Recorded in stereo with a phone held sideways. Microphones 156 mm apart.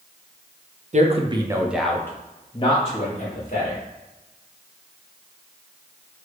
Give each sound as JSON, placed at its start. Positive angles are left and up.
{"t": 0.9, "sound": "a man speaking", "side_deg": -50, "distance_m": 0.6}